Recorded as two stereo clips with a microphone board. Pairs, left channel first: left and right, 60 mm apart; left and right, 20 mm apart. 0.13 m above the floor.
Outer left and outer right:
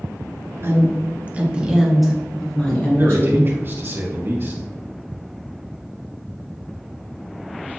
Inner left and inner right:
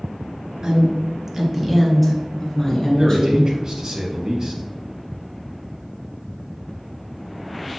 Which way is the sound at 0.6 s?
45° right (ahead or behind).